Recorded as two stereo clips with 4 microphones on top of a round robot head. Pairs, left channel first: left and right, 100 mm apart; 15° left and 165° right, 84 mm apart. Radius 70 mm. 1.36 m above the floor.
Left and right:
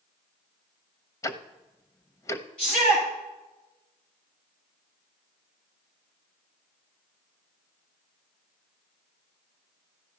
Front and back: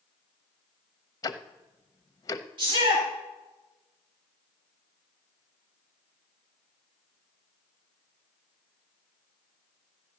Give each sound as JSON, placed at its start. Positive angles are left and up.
{"t": 1.2, "sound": "ticking", "azimuth_deg": 45, "distance_m": 0.7}
{"t": 2.6, "sound": "a shout", "azimuth_deg": 170, "distance_m": 9.5}